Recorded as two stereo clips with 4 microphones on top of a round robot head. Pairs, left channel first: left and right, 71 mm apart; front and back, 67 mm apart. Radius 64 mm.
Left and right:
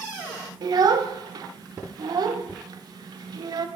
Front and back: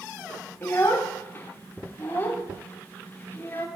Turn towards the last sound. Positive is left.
turn(degrees=-60)